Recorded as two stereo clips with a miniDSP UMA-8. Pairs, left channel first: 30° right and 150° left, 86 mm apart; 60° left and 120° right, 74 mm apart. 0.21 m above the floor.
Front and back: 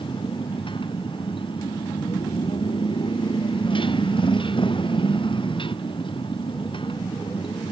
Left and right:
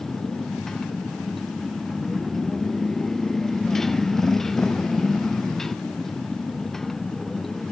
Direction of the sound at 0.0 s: 25° right.